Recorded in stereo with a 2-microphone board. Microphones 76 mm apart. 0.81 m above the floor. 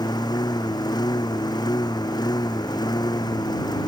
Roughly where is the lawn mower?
Left.